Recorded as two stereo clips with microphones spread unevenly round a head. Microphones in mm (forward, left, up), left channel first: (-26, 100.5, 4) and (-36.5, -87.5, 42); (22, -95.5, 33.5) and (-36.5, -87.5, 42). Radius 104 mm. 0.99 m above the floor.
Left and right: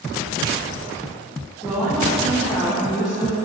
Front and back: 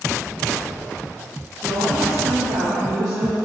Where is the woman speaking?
150° left, 1.3 m.